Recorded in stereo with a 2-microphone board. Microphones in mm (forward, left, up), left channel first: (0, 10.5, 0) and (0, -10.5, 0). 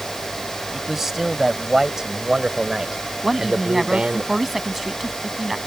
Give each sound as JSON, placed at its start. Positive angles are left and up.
{"t": 0.7, "sound": "a man speaking", "side_deg": -10}
{"t": 3.2, "sound": "a woman speaking", "side_deg": -15}